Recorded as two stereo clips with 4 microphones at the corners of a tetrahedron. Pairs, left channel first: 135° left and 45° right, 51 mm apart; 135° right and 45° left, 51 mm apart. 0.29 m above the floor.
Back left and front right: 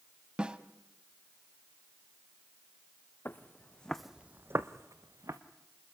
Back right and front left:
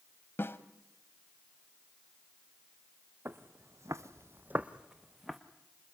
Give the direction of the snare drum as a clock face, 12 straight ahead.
4 o'clock.